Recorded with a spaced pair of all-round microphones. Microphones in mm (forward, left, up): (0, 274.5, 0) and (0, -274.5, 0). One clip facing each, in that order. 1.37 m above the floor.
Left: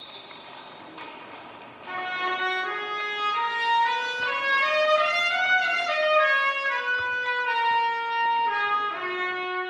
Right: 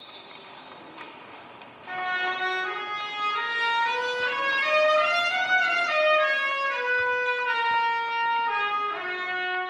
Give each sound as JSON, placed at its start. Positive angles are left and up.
{"t": 1.9, "sound": "a trumpet", "side_deg": -15, "distance_m": 0.8}